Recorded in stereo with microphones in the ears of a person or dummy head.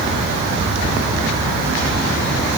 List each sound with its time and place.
Only background noise.